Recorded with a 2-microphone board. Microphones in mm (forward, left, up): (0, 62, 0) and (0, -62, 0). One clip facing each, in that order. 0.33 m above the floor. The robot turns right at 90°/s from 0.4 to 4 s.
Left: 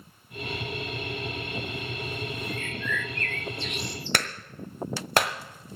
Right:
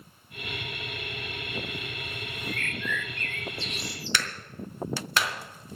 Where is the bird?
150° left, 1.1 m; by 4.2 s 75° right, 1.1 m.